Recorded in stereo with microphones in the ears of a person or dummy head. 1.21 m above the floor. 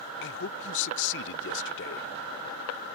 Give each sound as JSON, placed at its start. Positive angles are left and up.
{"t": 0.2, "sound": "a man speaking", "side_deg": 60}